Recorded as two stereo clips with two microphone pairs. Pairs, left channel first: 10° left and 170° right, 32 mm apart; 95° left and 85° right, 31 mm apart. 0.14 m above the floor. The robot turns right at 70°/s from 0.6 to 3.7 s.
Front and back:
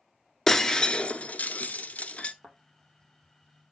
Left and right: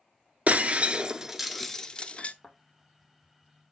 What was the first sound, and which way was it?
Breaking glass, 60° right.